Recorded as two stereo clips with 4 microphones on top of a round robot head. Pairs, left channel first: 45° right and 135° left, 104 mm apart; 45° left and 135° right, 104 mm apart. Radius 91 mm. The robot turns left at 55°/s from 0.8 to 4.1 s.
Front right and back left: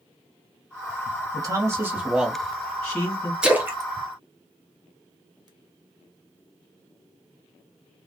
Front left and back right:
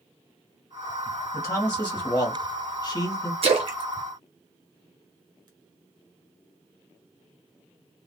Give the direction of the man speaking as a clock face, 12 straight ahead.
8 o'clock.